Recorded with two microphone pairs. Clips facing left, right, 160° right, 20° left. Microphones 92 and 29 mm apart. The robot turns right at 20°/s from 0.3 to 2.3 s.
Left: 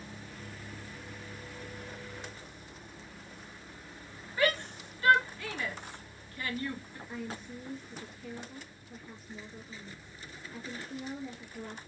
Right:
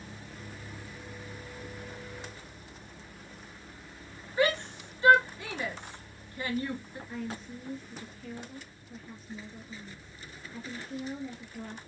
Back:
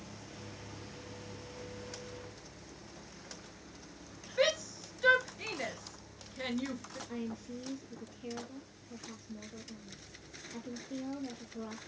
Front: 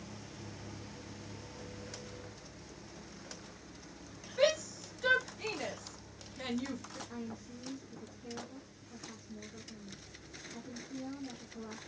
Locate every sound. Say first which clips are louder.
4.4 s a shout: right 2 dB, front 1 dB; 115° right, 1.6 m
7.1 s a woman speaking: right 2 dB, back 7 dB; 175° left, 2 m